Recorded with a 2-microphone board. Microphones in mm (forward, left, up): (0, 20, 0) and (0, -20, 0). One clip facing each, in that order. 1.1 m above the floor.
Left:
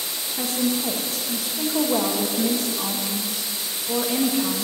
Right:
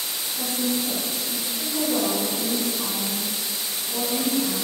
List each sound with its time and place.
0.4 s a woman speaking: 70° left (ahead or behind), 1.7 m